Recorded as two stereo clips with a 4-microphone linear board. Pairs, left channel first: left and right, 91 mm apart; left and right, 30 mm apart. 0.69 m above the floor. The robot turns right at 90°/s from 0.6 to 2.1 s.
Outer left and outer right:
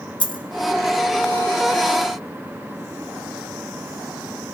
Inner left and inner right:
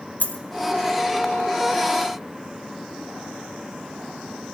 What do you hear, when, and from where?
0.2 s a dropped coin: 70° left (ahead or behind), 1.8 m